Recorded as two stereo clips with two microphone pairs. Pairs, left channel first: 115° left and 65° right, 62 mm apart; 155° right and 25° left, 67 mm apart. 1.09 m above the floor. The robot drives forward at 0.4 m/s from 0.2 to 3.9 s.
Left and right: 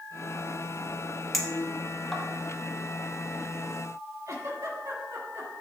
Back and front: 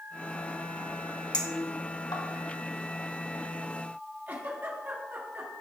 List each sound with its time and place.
1.3 s a clink: 155° right, 1.2 m; by 2.2 s 160° right, 1.5 m
4.3 s a giggle: 35° right, 2 m